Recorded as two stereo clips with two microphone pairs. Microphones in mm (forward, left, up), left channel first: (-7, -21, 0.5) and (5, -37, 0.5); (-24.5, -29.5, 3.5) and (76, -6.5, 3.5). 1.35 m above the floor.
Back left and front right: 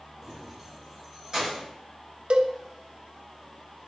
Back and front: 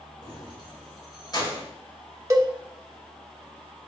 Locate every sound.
0.2 s keys jangling: 125° right, 3.5 m; by 1.6 s 115° right, 5 m
2.3 s a cowbell: 45° right, 0.9 m